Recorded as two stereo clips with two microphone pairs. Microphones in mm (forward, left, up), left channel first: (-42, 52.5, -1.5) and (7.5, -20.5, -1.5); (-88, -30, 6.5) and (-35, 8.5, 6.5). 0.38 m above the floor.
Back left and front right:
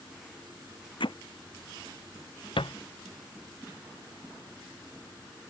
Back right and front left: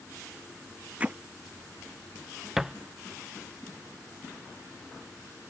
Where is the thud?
120° left.